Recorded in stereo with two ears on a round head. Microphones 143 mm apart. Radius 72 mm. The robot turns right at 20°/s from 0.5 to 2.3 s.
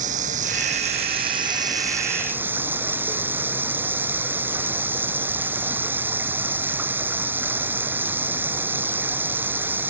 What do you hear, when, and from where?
0.0 s running water: 50° right; by 9.9 s 15° right